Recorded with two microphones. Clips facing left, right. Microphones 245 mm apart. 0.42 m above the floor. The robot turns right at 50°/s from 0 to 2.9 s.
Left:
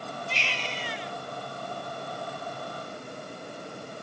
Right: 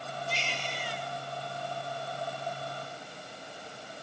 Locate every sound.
0.3 s a baby crying: 65° left; by 1.1 s 105° left